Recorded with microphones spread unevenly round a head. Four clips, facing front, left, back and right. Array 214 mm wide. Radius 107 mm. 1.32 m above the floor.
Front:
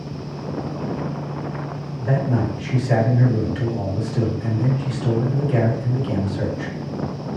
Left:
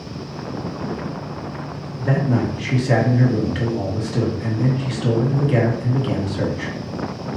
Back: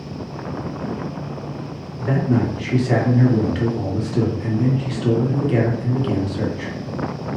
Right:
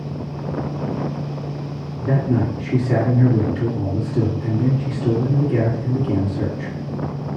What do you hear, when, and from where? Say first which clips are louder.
2.0 s a man speaking: even, back 3 dB; 105° left, 1.8 m